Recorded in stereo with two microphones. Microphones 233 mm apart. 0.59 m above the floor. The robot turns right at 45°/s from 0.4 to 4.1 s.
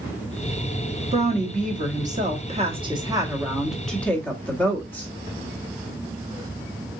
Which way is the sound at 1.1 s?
120° right.